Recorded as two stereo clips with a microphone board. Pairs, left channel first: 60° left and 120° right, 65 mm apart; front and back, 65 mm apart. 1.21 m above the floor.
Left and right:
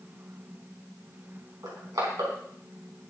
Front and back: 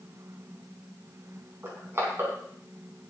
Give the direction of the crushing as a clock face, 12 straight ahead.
4 o'clock.